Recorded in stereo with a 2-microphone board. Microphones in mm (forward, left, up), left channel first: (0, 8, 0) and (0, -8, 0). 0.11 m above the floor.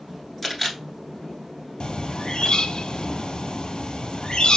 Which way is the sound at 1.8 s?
70° left (ahead or behind).